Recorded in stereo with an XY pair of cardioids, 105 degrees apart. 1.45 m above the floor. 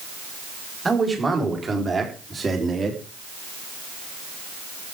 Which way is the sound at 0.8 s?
20° right.